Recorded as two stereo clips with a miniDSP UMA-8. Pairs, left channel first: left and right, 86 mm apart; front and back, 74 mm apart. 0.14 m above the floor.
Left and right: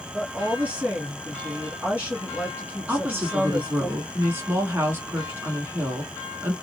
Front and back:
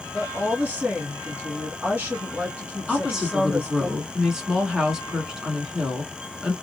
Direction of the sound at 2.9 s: 105° right.